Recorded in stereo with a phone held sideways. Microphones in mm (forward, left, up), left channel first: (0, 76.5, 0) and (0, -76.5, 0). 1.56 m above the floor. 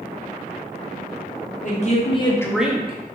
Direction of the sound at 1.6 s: 50° left (ahead or behind).